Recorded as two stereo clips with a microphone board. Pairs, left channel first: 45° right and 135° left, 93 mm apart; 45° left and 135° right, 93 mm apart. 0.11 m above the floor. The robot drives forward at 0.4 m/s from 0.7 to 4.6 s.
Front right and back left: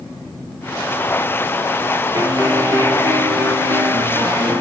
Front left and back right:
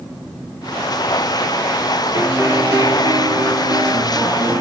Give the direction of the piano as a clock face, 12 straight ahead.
6 o'clock.